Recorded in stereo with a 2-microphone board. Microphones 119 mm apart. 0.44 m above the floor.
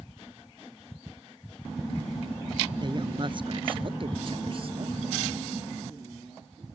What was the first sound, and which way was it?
A woman speaking, 40° right (ahead or behind).